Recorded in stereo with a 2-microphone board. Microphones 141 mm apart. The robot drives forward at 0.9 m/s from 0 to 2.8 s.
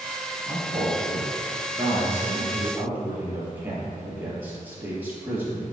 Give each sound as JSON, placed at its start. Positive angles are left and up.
{"t": 0.5, "sound": "a man speaking", "side_deg": -25, "distance_m": 1.5}